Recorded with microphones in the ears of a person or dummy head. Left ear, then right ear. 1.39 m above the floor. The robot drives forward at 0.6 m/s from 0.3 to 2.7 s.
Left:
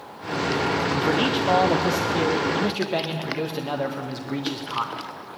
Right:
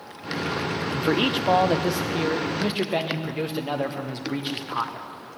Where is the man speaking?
20° right (ahead or behind), 0.7 m; by 5.1 s 5° right (ahead or behind), 1.7 m.